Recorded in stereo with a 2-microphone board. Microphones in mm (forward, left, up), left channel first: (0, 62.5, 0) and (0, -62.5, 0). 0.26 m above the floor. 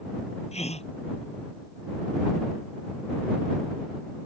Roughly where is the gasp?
Left.